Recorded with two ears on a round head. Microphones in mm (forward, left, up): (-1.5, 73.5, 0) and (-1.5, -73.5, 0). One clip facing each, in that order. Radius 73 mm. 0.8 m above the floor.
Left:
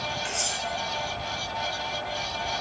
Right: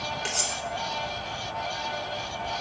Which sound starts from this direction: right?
Cutlery clinking, at 0.2 s.